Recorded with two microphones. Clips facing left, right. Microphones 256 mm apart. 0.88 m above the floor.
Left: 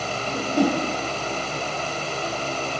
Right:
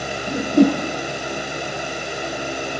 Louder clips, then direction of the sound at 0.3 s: Right 7 dB; 25° right (ahead or behind).